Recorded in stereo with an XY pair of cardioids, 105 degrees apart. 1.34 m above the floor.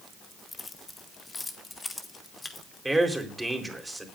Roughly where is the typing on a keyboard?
No typing on a keyboard in this recording.